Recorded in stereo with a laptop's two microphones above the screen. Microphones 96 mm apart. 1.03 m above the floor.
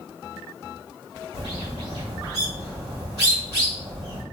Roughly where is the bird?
Right.